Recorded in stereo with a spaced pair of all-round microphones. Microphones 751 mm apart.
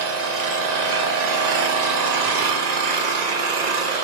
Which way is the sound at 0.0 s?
65° right (ahead or behind).